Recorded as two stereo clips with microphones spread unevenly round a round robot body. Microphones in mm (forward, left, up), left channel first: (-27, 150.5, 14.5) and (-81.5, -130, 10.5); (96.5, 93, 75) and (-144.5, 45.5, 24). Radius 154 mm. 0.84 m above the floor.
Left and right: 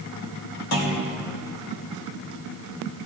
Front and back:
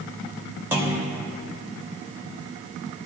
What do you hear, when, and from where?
0.7 s a clunk: 110° left, 2.5 m